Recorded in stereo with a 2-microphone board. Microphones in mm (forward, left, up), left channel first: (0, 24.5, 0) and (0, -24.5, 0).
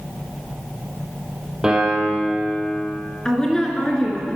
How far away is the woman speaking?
About 1.6 m.